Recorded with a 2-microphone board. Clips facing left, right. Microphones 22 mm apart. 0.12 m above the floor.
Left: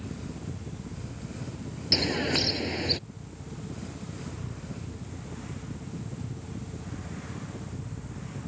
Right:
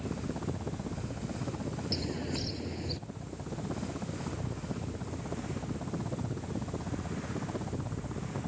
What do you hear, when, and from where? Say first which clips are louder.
0.0 s a helicopter: right 3 dB; 70° right (ahead or behind)
1.9 s a bird: left 12 dB; 50° left (ahead or behind)